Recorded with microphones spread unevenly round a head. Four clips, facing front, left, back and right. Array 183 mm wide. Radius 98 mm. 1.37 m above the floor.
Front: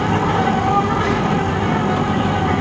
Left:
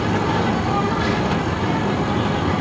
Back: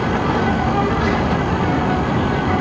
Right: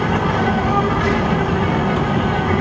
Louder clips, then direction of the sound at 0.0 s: Right 2 dB, front 1 dB; 20° right.